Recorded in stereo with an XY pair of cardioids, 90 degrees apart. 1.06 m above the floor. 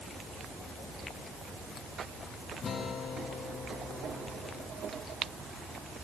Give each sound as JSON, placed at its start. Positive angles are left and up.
{"t": 2.6, "sound": "a guitar", "azimuth_deg": 50, "distance_m": 5.0}